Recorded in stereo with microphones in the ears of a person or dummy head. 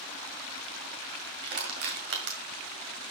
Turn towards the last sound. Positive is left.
turn(degrees=-45)  # may be behind; listen again after turning